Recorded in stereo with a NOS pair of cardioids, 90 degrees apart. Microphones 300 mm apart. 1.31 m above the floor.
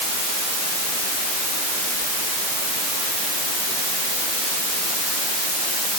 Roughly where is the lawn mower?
No lawn mower in this recording.